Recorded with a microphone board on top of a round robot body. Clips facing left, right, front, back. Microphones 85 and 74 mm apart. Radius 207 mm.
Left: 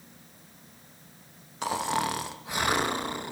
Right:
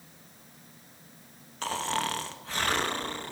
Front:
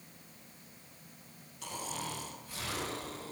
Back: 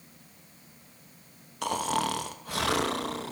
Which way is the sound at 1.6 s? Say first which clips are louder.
Left 3 dB, back 13 dB; 165° left.